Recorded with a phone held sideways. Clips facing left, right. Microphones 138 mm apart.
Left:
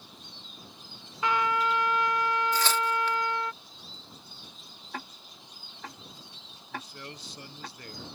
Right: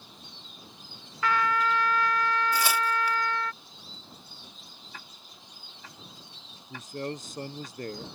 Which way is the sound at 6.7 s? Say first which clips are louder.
Right 7 dB; 45° right (ahead or behind).